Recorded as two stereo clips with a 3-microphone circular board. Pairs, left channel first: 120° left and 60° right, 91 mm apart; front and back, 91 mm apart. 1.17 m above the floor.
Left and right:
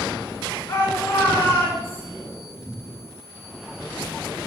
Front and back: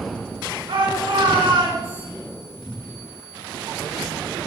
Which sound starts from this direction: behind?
A shout, at 0.7 s.